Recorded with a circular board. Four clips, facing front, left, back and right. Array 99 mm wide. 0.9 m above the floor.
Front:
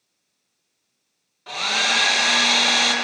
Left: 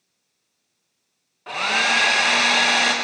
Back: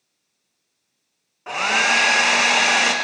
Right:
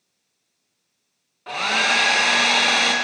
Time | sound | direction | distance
1.5 | a hair dryer | 175° left | 0.8 m